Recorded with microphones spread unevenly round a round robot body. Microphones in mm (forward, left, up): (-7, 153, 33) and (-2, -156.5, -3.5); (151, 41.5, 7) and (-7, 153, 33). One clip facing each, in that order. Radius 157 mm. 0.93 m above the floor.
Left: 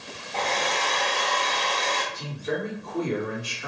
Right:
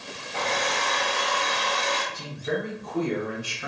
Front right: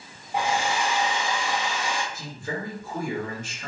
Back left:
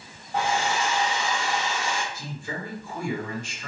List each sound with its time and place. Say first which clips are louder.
0.3 s a hair dryer: even, even; 60° right, 0.8 m
2.1 s a man speaking: even, front right 2 dB; 70° right, 1.7 m